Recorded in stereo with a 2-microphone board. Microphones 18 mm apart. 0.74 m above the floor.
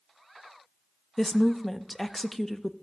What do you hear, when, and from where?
1.2 s a woman speaking: 10° left (ahead or behind), 0.6 m